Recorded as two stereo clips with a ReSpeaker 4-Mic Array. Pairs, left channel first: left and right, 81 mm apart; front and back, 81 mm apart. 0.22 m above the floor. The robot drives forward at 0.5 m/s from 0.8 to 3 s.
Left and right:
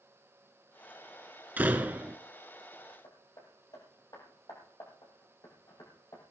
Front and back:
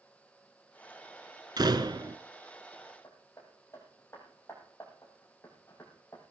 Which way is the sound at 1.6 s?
155° right.